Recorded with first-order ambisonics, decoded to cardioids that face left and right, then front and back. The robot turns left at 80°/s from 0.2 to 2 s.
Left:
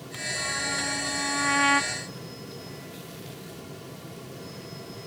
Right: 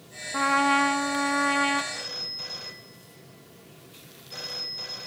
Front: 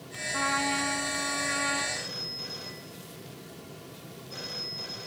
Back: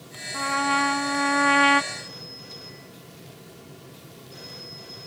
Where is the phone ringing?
55° right, 5.5 m; by 5.1 s 65° right, 5.5 m.